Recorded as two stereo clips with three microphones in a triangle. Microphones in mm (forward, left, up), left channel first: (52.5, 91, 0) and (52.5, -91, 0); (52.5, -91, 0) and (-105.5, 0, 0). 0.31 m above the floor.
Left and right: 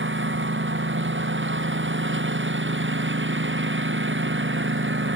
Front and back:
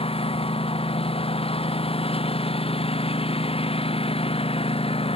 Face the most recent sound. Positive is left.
turn(degrees=-90)